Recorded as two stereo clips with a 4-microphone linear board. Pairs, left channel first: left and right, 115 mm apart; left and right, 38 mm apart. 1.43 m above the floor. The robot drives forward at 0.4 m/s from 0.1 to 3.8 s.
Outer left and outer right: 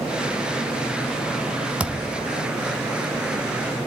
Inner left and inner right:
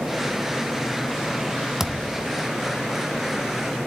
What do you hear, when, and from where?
1.8 s a thud: 10° right (ahead or behind), 0.9 m